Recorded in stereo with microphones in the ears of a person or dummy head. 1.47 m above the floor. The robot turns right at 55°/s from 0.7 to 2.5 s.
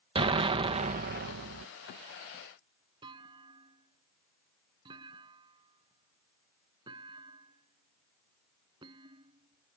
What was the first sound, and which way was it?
An explosion, 150° right.